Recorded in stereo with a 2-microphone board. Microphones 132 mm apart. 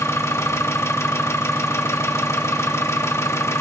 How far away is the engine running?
About 0.9 m.